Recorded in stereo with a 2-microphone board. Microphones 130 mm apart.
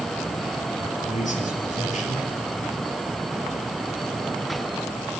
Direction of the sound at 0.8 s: 75° left (ahead or behind).